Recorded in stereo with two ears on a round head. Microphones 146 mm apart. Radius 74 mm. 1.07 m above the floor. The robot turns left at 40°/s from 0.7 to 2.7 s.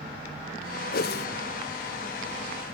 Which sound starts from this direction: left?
A whoosh, at 0.9 s.